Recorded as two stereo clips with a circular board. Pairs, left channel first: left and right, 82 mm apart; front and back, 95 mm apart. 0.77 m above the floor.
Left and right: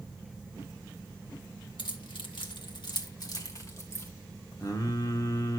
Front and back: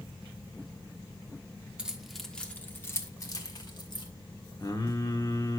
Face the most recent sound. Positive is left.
turn(degrees=50)